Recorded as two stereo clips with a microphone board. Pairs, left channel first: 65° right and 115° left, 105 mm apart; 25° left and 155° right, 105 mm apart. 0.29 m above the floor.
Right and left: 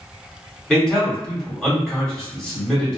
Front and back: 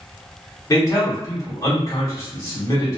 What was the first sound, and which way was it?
A man speaking, 10° left.